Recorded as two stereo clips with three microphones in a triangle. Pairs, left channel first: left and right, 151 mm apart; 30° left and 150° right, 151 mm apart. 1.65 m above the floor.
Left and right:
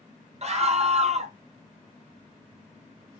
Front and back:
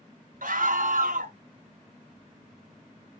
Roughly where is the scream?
Behind right.